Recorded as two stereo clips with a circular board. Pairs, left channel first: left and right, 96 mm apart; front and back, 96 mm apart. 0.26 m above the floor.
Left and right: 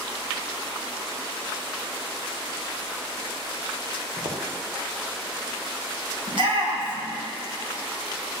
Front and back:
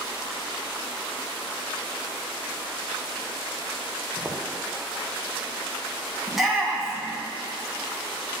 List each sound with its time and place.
4.2 s footsteps: 100° right, 2 m
6.3 s a shout: 95° right, 2.0 m